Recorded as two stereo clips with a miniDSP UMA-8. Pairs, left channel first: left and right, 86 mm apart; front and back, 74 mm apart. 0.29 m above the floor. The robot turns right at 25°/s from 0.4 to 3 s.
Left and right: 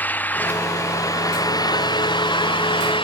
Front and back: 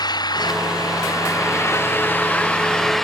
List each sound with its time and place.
0.0 s an engine running: 20° left; by 3.0 s 85° left